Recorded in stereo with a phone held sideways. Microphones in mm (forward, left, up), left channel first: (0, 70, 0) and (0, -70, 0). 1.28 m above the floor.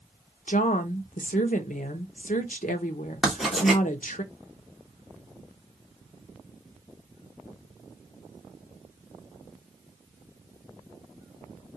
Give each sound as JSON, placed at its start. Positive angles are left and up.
{"t": 0.5, "sound": "a woman speaking", "side_deg": 70, "distance_m": 0.9}
{"t": 3.2, "sound": "writing", "side_deg": 0, "distance_m": 1.8}